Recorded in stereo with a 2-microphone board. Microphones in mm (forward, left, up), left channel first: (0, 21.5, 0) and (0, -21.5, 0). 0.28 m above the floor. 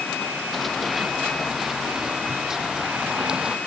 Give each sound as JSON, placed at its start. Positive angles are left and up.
{"t": 0.5, "sound": "running footsteps", "side_deg": 0}